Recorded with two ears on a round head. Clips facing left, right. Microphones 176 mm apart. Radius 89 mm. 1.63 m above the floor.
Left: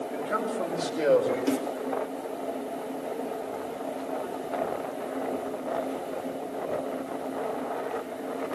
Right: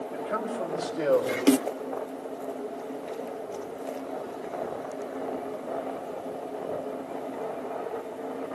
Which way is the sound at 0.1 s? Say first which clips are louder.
Left 1 dB; 20° left (ahead or behind).